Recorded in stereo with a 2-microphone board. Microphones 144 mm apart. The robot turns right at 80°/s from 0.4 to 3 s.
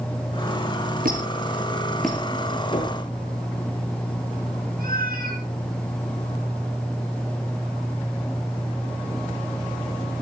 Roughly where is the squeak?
Right.